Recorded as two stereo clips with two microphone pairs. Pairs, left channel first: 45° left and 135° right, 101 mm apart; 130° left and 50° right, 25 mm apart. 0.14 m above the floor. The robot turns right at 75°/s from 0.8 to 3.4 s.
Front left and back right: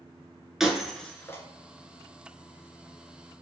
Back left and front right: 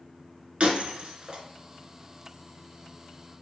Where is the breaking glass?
50° right, 0.6 m; by 1.4 s straight ahead, 0.6 m.